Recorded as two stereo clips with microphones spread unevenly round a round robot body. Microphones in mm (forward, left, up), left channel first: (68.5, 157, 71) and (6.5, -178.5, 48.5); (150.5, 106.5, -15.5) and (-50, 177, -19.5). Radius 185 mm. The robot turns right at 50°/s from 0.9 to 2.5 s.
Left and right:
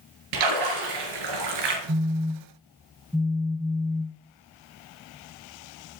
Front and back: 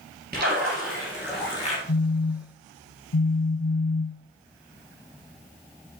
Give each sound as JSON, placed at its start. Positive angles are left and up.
{"t": 0.3, "sound": "a splash", "azimuth_deg": -135, "distance_m": 3.0}
{"t": 1.9, "sound": "a phone buzzing", "azimuth_deg": -40, "distance_m": 0.6}